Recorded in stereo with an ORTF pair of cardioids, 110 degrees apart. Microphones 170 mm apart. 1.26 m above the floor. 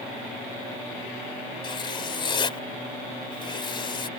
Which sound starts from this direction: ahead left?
Writing, at 1.6 s.